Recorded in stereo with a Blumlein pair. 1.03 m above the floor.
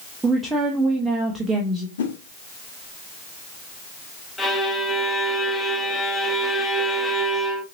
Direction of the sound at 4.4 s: 5° left.